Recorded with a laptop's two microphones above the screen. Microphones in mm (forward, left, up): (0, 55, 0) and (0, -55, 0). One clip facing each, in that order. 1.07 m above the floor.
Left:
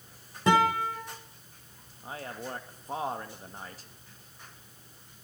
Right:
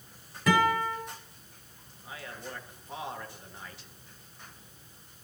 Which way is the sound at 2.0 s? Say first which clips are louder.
Left 4 dB; 40° left (ahead or behind).